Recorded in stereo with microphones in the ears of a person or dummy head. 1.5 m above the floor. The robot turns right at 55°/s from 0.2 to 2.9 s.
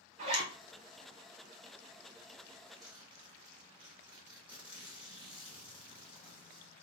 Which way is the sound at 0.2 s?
45° right (ahead or behind).